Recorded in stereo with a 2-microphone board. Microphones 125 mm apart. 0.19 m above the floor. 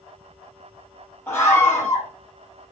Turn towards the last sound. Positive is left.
turn(degrees=15)  # may be behind; listen again after turning